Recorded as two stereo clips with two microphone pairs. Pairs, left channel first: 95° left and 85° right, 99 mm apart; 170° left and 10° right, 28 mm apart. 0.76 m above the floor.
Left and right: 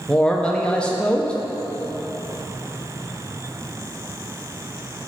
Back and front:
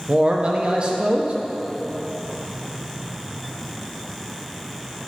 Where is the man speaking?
20° left, 0.6 m.